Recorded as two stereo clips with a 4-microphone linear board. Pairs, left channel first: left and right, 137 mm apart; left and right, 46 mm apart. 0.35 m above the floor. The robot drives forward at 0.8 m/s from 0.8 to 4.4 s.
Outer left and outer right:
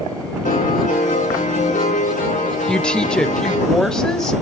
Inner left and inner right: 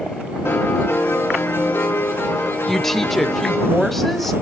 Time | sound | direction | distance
0.5 | a piano | 75° left (ahead or behind) | 5.5 m
2.7 | a woman speaking | 5° left (ahead or behind) | 0.9 m